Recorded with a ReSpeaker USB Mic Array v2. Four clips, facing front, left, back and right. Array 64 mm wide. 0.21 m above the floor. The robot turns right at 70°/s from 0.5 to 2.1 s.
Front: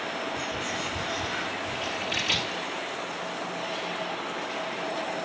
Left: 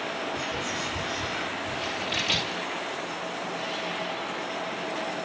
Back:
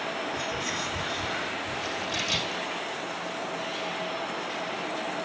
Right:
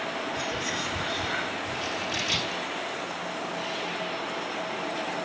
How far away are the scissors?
About 4.5 m.